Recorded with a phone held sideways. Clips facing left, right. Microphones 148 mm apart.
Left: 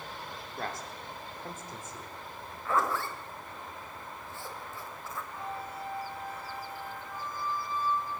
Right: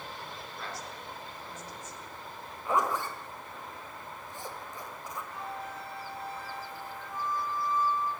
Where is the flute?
85° right, 6.5 m.